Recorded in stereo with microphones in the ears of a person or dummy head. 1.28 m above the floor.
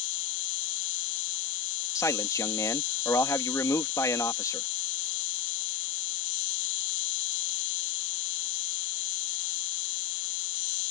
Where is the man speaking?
15° left (ahead or behind).